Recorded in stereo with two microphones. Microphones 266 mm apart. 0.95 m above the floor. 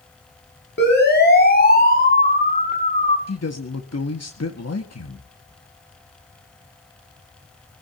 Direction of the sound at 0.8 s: 40° left (ahead or behind).